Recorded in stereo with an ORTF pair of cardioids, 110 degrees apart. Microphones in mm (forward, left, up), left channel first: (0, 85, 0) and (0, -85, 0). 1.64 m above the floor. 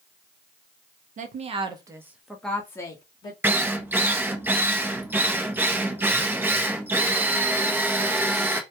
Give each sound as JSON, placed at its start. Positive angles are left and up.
{"t": 1.2, "sound": "a woman speaking", "azimuth_deg": -50, "distance_m": 0.8}
{"t": 3.4, "sound": "a drill", "azimuth_deg": -10, "distance_m": 0.6}